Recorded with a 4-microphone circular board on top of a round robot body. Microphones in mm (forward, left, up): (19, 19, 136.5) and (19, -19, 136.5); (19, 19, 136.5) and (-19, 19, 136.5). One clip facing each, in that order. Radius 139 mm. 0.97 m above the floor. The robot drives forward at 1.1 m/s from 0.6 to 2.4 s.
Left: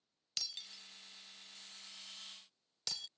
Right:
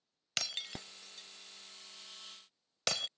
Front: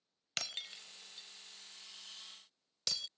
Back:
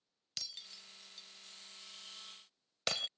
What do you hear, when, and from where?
0.4 s breaking glass: 45° right; by 3.1 s 130° right